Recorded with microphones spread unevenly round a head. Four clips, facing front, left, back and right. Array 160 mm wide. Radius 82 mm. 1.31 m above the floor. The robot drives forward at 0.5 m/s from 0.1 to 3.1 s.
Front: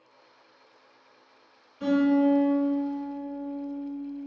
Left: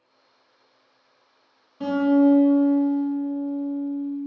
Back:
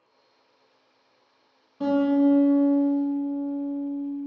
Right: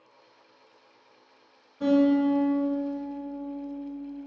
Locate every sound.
1.8 s a guitar: 155° left, 0.9 m; by 4.2 s 165° left, 1.5 m